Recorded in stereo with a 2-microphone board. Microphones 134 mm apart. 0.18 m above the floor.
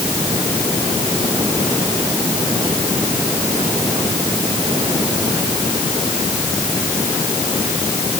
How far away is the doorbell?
No doorbell in this recording.